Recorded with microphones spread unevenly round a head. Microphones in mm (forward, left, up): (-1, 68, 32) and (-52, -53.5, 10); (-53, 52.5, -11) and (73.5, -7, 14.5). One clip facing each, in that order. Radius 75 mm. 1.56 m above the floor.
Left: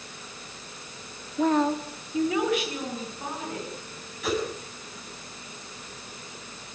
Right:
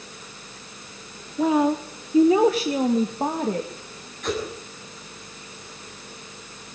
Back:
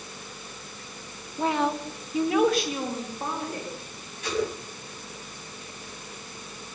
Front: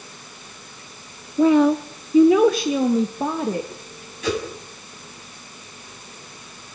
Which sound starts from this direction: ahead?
A whoosh, at 4.2 s.